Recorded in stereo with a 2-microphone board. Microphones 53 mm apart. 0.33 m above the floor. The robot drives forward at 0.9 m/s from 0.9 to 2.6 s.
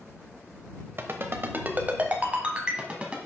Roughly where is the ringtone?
Right.